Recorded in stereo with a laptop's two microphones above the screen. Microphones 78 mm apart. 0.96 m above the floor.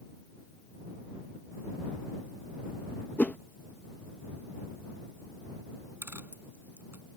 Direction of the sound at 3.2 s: 20° left (ahead or behind).